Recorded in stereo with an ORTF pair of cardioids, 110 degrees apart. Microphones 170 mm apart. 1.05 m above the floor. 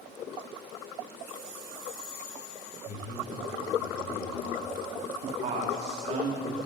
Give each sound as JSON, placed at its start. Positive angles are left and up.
{"t": 2.9, "sound": "a man speaking", "azimuth_deg": 55, "distance_m": 6.5}
{"t": 5.2, "sound": "a man speaking", "azimuth_deg": -45, "distance_m": 3.0}